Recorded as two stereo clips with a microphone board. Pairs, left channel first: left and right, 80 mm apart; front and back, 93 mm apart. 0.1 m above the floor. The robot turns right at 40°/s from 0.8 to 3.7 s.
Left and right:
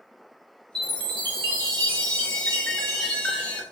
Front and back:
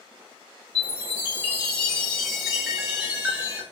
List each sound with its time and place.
0.8 s a chime: 25° left, 1.4 m; by 3.6 s 135° left, 1.4 m